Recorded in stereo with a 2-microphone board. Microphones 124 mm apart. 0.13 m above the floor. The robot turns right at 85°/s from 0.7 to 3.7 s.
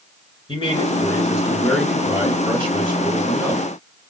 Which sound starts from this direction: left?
A man speaking, at 0.5 s.